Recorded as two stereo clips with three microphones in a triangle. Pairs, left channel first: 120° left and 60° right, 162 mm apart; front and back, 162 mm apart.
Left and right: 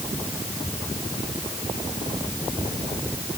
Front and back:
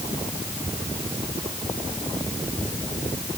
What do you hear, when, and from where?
Only background noise.